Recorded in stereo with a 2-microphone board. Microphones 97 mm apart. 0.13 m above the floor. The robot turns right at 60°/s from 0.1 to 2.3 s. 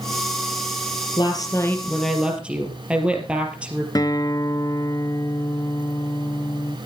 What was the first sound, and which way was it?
A woman speaking, 125° left.